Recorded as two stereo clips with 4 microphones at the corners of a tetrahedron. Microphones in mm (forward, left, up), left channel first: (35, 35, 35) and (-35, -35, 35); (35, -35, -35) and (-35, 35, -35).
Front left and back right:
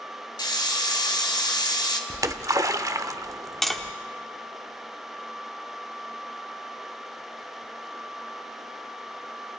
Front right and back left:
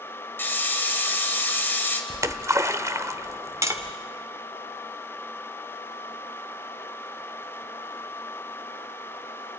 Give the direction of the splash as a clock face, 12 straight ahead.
6 o'clock.